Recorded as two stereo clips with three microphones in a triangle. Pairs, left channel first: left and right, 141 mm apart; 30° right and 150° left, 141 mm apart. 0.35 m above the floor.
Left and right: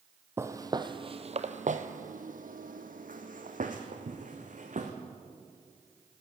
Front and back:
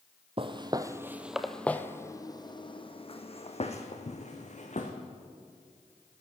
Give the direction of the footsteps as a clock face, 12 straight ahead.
5 o'clock.